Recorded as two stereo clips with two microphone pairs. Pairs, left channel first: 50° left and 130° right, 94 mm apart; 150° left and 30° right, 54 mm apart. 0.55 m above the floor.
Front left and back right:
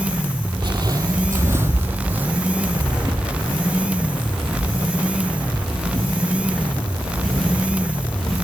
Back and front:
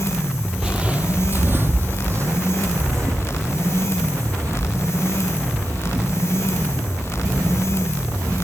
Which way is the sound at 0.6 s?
100° right.